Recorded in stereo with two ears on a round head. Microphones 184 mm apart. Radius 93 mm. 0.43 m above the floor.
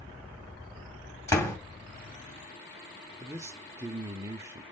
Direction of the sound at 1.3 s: 15° left (ahead or behind).